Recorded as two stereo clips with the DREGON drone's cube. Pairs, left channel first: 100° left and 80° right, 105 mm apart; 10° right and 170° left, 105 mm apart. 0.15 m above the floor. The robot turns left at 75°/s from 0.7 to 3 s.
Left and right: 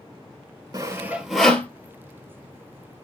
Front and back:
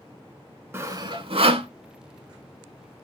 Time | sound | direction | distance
0.7 | sawing | 125° right | 0.5 m